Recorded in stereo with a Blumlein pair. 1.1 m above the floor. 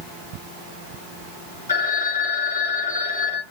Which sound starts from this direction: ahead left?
A phone ringing, at 1.7 s.